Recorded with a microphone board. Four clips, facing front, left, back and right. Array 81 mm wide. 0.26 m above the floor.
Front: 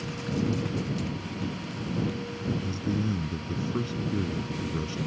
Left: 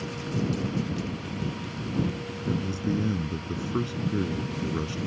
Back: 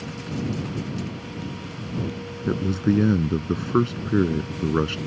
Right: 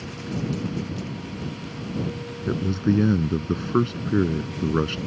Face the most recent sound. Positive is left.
turn(degrees=-150)